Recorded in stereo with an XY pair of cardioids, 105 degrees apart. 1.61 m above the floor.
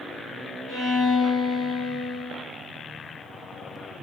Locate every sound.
0.7 s a violin: 60° left, 1.3 m